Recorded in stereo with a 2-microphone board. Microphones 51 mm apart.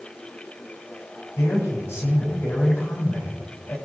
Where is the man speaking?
60° left (ahead or behind), 8.5 m.